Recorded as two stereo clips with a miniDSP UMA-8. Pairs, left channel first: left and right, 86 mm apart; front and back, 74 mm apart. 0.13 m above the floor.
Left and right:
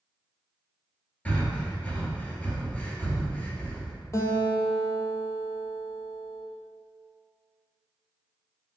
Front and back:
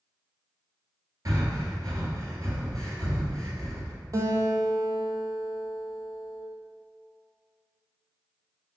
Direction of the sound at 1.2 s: 160° left.